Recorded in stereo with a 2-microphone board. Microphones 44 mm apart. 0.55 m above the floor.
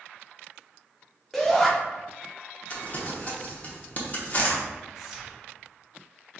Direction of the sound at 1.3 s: 5° left (ahead or behind).